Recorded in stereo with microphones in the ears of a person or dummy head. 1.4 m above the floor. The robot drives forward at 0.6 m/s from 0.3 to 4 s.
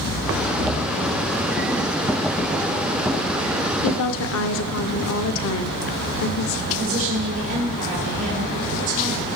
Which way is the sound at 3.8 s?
70° left (ahead or behind).